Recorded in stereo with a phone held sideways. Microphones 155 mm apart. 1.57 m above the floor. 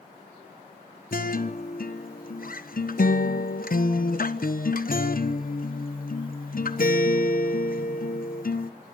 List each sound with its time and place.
1.1 s a guitar: 60° left (ahead or behind), 1.1 m